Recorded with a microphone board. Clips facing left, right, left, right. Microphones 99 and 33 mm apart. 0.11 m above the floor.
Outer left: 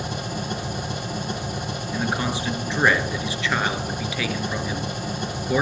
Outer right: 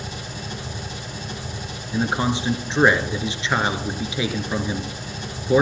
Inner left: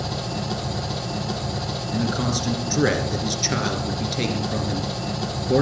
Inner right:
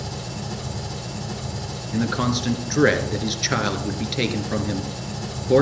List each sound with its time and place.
0.0 s an engine running: 60° left (ahead or behind), 1.9 m
1.9 s a man speaking: 20° right (ahead or behind), 1.4 m